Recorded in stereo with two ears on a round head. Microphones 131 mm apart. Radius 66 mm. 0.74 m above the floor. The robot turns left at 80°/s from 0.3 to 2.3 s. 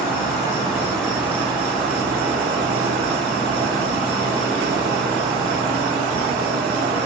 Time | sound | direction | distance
0.0 | an insect | 60° left | 2.5 m